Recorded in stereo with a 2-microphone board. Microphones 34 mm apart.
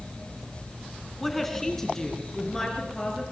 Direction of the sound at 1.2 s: 5° left (ahead or behind).